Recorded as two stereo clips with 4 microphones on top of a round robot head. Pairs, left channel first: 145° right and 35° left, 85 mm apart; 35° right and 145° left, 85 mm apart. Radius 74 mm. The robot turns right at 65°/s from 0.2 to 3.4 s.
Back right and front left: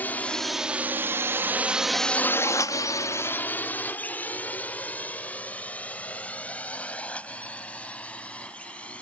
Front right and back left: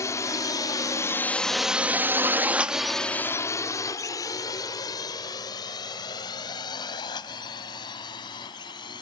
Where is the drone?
80° right; by 9.0 s 70° right.